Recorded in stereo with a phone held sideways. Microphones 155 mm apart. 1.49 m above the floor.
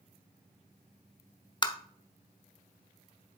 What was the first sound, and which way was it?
Tapping, 30° left (ahead or behind).